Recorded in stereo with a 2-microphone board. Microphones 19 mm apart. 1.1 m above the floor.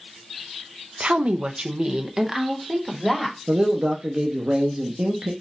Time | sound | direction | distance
1.0 | a woman speaking | 85° right | 0.5 m
3.5 | a man speaking | 60° right (ahead or behind) | 0.7 m